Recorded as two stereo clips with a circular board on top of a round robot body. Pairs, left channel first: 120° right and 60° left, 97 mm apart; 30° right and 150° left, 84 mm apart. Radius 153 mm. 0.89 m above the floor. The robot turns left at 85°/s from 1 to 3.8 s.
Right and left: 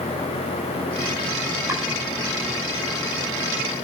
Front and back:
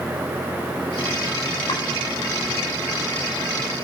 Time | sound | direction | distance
1.7 | chopping | 5° right | 5.5 m